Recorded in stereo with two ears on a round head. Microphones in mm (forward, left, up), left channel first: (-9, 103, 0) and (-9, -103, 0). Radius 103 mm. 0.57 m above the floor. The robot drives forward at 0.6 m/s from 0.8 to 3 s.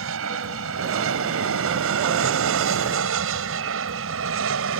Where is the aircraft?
65° right (ahead or behind); by 4.8 s 60° right (ahead or behind).